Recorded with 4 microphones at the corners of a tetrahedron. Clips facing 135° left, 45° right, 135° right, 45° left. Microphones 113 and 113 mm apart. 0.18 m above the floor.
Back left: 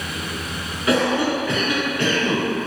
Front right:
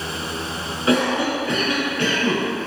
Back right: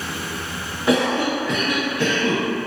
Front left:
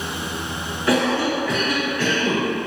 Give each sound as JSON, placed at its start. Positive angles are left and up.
{"t": 0.9, "sound": "a cough", "azimuth_deg": -85, "distance_m": 1.6}